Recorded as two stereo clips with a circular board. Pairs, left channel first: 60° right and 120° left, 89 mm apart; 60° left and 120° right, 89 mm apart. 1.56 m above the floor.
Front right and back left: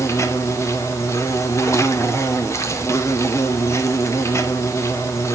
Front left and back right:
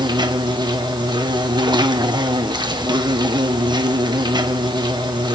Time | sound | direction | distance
0.0 | an insect | 110° right | 1.1 m